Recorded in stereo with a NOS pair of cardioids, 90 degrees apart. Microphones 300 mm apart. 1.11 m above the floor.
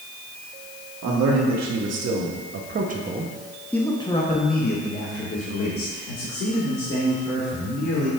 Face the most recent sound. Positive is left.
turn(degrees=60)